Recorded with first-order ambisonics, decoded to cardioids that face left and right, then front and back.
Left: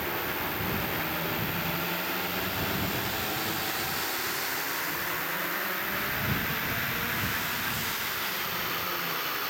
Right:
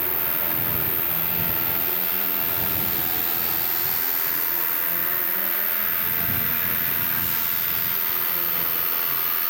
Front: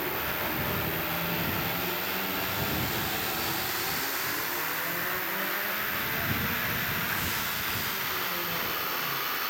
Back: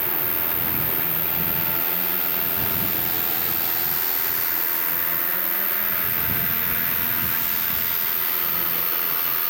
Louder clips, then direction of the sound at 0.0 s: Even, back 1 dB; 130° right.